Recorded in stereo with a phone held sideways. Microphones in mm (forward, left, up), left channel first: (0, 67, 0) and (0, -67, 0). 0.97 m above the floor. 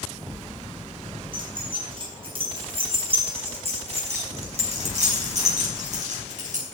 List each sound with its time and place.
1.3 s keys jangling: 40° right (ahead or behind), 6.5 m; by 6.7 s 70° right (ahead or behind), 5 m